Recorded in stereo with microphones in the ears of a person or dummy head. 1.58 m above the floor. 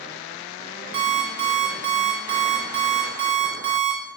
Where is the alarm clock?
50° right (ahead or behind), 1.5 m.